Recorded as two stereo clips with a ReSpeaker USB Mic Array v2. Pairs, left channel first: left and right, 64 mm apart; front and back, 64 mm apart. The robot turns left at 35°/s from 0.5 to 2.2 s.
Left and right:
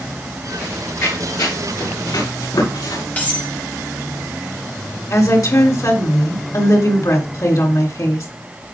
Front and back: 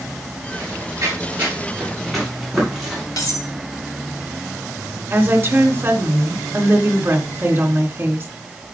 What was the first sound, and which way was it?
Running footsteps, 145° left.